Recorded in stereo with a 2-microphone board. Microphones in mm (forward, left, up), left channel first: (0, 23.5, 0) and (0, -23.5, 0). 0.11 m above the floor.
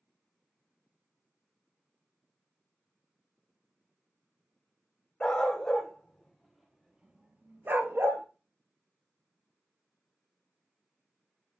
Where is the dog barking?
10° left (ahead or behind), 1.9 m; by 8.2 s 60° right (ahead or behind), 0.9 m.